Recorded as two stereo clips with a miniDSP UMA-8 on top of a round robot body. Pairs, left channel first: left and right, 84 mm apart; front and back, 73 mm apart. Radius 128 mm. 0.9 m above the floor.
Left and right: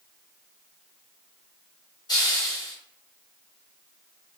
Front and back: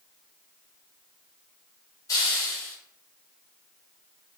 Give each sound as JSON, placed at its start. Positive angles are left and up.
{"t": 2.1, "sound": "a hiss", "azimuth_deg": 50, "distance_m": 1.4}